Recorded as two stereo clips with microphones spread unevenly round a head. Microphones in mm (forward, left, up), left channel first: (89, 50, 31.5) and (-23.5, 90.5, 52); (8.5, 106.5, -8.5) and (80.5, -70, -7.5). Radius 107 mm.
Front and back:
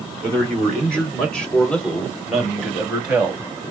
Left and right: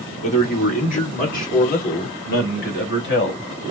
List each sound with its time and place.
0.2 s a man speaking: 60° left, 4 m; by 3.5 s 80° left, 2.5 m